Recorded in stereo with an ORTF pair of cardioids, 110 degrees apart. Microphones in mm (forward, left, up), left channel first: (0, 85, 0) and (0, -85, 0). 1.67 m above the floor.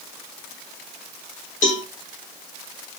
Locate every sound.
1.6 s a cowbell: 50° left, 2.5 m